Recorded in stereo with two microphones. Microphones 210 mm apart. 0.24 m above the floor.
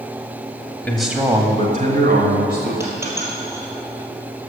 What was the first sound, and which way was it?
A man speaking, 10° left (ahead or behind).